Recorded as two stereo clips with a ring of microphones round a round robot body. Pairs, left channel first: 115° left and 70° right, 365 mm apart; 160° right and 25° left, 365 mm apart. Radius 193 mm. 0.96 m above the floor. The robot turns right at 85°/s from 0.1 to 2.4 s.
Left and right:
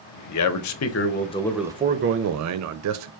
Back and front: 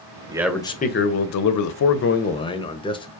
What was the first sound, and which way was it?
A man speaking, 95° left.